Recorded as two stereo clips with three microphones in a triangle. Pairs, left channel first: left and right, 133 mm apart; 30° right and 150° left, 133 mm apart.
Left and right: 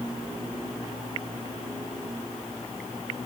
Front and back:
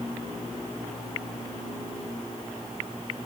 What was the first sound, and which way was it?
Only background noise.